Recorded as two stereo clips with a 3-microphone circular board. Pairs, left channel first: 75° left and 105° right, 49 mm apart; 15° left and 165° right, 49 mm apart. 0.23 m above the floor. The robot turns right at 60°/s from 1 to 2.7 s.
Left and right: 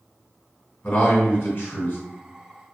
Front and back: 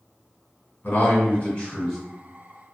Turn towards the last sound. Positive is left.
turn(degrees=135)